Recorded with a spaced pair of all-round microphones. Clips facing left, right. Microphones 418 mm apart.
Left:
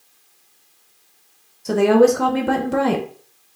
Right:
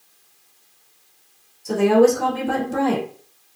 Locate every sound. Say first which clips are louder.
1.6 s a woman speaking: left 1 dB; 75° left (ahead or behind), 0.7 m